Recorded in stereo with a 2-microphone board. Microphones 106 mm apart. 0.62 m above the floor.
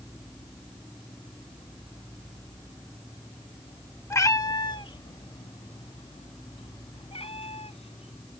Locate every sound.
4.1 s a cat meowing: 25° left (ahead or behind); by 8.4 s 70° left (ahead or behind)